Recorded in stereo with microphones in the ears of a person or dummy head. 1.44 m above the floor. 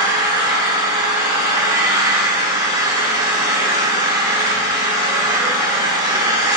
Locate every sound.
0.0 s an engine running: 25° right (ahead or behind), 4 m